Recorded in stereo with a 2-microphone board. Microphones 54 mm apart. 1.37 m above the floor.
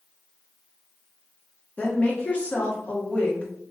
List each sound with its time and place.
1.8 s a woman speaking: 25° left (ahead or behind), 0.9 m